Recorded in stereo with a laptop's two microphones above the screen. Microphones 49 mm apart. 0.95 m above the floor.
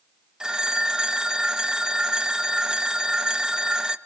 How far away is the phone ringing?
About 0.7 m.